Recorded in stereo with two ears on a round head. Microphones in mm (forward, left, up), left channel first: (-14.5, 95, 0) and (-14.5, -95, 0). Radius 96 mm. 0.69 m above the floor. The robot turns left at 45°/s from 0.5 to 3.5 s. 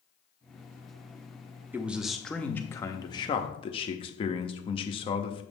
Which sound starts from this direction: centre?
A man speaking, at 1.7 s.